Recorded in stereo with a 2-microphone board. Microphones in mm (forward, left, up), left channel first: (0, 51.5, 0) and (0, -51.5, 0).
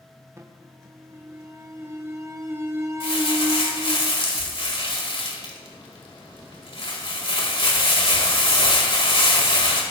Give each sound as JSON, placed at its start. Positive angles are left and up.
{"t": 0.4, "sound": "an alarm", "side_deg": -30, "distance_m": 1.0}
{"t": 3.0, "sound": "crumpling", "side_deg": 65, "distance_m": 2.5}